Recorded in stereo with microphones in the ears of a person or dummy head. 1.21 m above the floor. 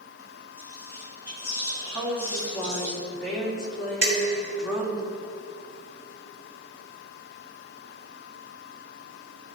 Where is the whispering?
20° right (ahead or behind), 3.5 m.